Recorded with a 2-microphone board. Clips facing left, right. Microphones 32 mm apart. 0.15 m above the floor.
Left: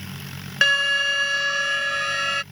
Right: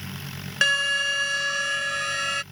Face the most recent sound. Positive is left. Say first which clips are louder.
# left 3 dB
turn(degrees=10)  # may be behind; listen again after turning